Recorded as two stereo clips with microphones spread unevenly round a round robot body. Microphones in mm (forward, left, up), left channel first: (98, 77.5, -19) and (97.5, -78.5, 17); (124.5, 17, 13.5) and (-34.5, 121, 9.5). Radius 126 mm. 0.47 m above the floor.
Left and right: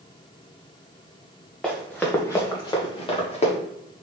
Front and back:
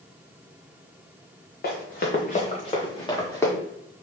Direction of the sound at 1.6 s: Straight ahead.